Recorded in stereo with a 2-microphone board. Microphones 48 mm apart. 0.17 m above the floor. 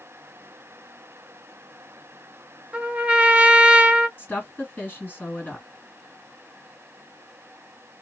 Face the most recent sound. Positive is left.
turn(degrees=40)  # may be behind; listen again after turning